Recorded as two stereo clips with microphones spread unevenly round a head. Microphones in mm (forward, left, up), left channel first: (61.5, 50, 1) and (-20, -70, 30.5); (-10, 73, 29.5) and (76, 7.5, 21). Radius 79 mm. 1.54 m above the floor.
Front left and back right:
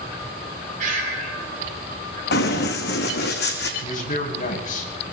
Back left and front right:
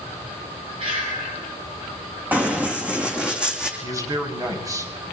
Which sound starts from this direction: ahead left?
Running footsteps, at 2.3 s.